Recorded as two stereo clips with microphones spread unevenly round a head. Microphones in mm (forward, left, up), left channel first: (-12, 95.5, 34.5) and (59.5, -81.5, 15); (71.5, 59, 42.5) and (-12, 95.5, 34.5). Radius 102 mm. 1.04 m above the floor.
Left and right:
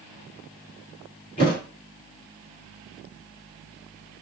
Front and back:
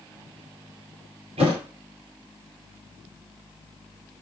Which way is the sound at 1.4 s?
165° left.